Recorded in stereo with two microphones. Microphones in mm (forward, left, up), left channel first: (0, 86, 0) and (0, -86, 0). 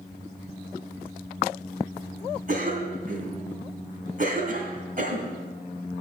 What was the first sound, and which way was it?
A cough, 50° right (ahead or behind).